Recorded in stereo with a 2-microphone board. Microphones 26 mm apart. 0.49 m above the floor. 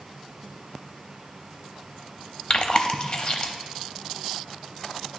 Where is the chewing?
35° left (ahead or behind), 0.6 m.